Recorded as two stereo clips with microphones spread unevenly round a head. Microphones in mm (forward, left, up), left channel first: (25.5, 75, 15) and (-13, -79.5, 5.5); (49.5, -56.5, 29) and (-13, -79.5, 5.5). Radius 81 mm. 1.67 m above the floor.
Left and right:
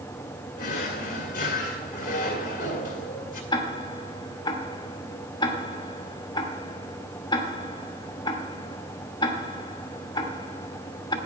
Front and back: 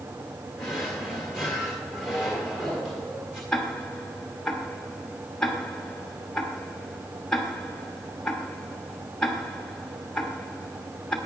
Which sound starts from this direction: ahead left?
Ticking, at 3.5 s.